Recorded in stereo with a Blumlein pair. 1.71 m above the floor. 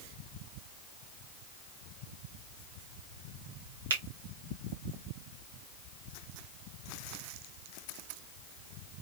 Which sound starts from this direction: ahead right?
A finger snap, at 3.9 s.